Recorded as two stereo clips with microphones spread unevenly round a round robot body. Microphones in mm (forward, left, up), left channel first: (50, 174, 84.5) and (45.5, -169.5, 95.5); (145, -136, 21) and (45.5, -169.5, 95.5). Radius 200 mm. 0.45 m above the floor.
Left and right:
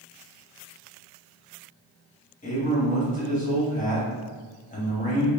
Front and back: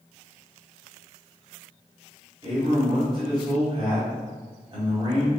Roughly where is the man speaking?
Behind left.